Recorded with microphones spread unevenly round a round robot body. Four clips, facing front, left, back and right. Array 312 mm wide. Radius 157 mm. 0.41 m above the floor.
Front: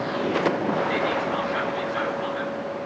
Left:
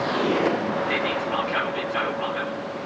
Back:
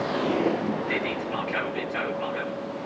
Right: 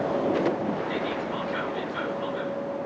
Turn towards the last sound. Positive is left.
turn(degrees=175)